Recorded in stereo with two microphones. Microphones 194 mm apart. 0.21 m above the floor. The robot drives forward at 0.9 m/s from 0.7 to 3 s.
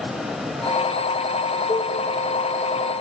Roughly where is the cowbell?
Left.